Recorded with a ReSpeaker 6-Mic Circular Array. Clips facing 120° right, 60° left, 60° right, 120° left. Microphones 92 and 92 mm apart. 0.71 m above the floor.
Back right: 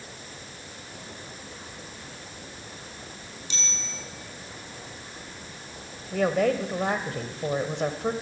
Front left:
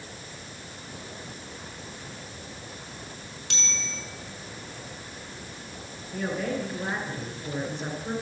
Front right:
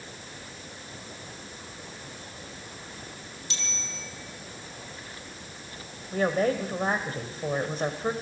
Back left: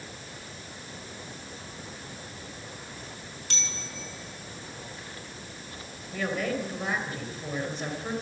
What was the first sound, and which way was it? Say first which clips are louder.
A bicycle bell: front left 3 dB, even; 90° left.